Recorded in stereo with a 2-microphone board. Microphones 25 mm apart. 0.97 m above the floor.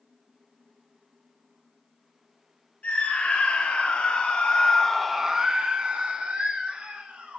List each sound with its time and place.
2.8 s a scream: 85° left, 2.5 m; by 7.4 s 60° right (ahead or behind), 3 m